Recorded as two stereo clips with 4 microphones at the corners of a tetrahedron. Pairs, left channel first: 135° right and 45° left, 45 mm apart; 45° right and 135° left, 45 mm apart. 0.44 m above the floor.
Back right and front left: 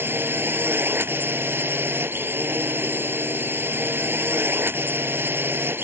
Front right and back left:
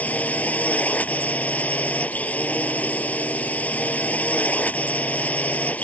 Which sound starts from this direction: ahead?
A drone, at 0.0 s.